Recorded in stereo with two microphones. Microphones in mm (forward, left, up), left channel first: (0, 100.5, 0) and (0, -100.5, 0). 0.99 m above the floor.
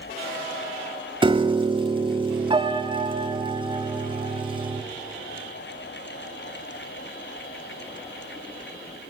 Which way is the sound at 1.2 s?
25° right (ahead or behind).